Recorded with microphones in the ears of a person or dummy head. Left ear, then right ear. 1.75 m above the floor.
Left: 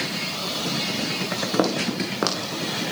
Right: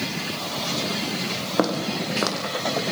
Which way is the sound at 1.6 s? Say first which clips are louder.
Right 1 dB; 5° left (ahead or behind).